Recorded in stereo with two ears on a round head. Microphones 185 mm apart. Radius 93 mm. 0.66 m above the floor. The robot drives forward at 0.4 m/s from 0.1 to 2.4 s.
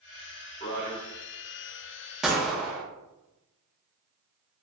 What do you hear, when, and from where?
0.6 s a man speaking: 35° left (ahead or behind), 1.2 m
2.2 s a gunshot: 5° right (ahead or behind), 0.6 m